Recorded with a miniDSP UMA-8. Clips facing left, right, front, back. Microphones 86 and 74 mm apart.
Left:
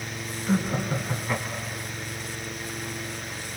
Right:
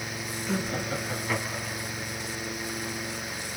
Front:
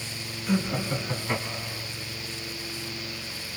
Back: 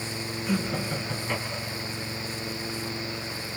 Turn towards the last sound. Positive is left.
turn(degrees=-35)